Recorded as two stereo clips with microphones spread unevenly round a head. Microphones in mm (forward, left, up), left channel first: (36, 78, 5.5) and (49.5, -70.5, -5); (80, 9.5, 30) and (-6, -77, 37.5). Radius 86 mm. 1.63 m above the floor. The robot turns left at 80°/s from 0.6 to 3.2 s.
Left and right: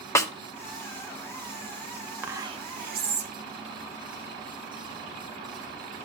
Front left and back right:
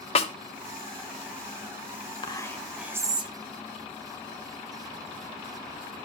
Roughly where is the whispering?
Ahead.